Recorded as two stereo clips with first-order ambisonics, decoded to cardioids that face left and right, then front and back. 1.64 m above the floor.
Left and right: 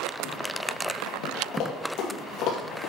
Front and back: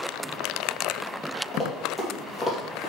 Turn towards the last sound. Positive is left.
turn(degrees=75)